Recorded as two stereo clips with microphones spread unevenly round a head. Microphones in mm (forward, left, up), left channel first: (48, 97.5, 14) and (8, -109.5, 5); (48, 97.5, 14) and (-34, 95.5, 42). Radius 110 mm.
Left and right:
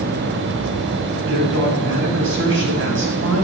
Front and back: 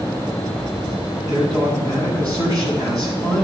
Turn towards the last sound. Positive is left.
turn(degrees=-70)